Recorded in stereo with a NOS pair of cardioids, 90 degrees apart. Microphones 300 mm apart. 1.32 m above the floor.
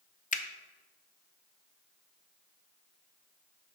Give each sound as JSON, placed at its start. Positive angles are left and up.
{"t": 0.3, "sound": "a finger snap", "azimuth_deg": 25, "distance_m": 0.6}